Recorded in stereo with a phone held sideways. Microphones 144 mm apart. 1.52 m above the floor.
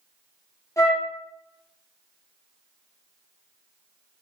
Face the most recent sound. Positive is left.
turn(degrees=20)  # may be behind; listen again after turning